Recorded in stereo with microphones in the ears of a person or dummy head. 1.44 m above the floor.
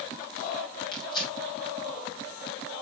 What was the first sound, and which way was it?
Tearing paper, 30° left (ahead or behind).